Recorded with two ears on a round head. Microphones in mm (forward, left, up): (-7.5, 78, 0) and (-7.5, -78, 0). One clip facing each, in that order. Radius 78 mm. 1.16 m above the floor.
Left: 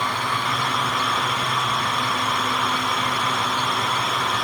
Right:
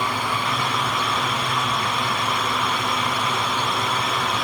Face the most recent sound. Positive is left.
No sound to turn to.